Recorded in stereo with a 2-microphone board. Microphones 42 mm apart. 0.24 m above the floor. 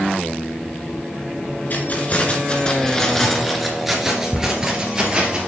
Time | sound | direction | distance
1.7 | keys jangling | 45° left (ahead or behind) | 1.9 m